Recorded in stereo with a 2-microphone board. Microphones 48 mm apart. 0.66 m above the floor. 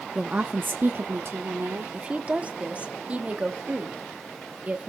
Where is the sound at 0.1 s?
15° right (ahead or behind), 0.6 m; by 2.0 s 70° right (ahead or behind), 1.4 m.